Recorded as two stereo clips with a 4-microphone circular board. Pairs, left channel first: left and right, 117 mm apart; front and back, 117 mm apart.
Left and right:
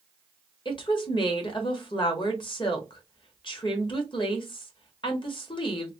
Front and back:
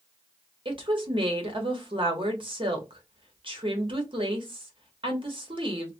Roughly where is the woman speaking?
Behind left.